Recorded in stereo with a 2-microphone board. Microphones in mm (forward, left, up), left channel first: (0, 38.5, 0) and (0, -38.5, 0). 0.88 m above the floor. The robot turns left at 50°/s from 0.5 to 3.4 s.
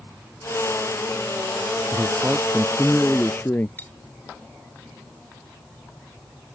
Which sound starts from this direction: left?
Cutlery clinking, at 3.8 s.